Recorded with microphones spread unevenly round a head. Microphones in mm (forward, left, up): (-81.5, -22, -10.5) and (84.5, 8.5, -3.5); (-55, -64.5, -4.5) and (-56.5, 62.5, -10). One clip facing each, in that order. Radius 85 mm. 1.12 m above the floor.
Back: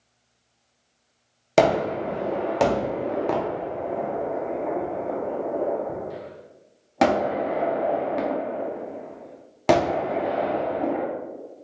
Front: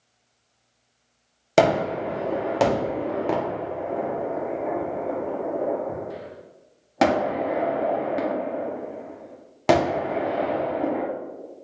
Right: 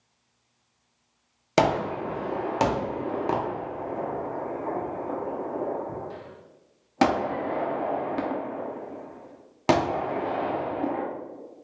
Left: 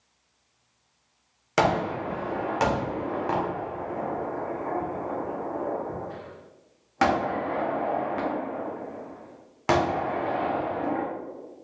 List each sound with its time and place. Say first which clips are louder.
1.6 s a gunshot: even, right 1 dB; 80° right, 0.6 m